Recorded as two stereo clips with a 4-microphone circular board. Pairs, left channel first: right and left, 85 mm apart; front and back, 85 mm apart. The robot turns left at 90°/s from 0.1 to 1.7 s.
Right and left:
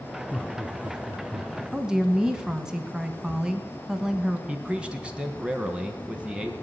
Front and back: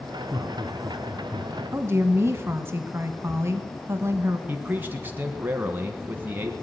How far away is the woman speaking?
About 1.2 m.